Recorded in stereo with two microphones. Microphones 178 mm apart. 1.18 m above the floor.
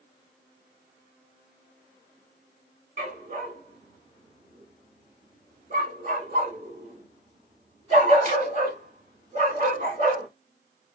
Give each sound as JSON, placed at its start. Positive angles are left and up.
{"t": 3.0, "sound": "a dog barking", "side_deg": -45, "distance_m": 0.8}